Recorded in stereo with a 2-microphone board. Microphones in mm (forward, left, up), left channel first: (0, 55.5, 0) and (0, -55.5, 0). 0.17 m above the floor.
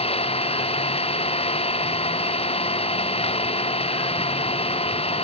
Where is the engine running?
55° left (ahead or behind).